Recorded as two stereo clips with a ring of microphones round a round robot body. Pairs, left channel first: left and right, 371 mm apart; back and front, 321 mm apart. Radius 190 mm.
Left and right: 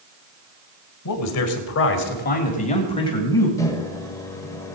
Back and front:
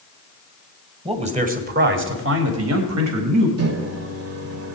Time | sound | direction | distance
1.1 | a man speaking | 70° left | 1.9 m
3.6 | a microwave | 10° left | 1.4 m